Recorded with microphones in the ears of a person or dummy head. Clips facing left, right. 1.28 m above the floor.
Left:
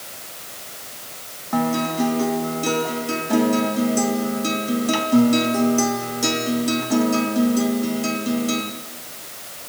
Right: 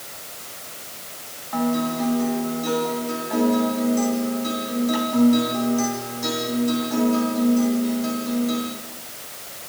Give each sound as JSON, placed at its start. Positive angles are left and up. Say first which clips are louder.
{"t": 1.5, "sound": "a guitar", "louder": "left 1 dB", "side_deg": 35, "distance_m": 2.5}